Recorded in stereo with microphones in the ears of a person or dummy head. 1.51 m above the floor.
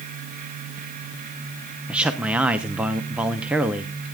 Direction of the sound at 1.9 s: 10° right (ahead or behind).